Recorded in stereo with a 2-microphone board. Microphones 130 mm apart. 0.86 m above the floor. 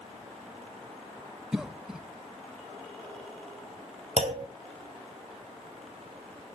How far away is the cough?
About 0.6 m.